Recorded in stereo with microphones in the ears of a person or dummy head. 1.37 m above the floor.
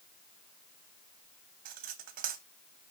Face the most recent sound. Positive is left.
turn(degrees=-50)  # may be behind; listen again after turning